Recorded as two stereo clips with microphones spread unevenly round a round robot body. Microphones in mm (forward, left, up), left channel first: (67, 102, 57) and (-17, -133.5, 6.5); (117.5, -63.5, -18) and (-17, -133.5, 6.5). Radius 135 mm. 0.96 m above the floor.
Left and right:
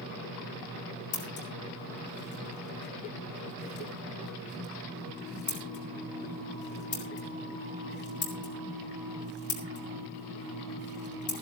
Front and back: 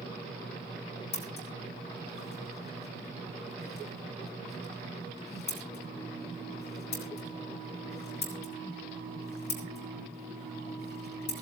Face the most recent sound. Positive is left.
turn(degrees=20)